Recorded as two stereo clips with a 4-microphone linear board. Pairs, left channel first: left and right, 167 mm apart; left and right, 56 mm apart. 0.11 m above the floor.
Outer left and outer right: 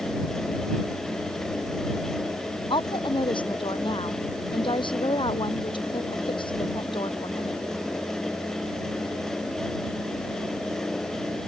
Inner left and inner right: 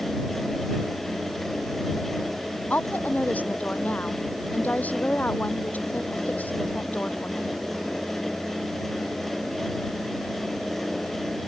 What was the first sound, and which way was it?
A woman speaking, 30° left (ahead or behind).